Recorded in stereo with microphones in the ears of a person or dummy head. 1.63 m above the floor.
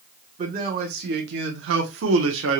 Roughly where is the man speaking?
Right.